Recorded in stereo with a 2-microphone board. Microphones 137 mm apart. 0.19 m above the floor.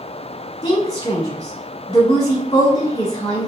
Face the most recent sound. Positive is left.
turn(degrees=30)  # may be behind; listen again after turning